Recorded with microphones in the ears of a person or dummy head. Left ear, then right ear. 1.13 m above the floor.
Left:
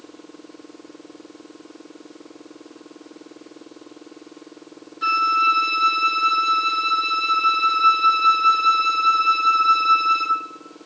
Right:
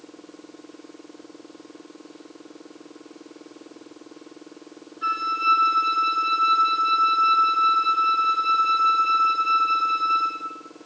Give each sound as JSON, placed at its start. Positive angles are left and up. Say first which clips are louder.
{"t": 5.0, "sound": "a flute", "louder": "left 5 dB", "side_deg": 45, "distance_m": 2.5}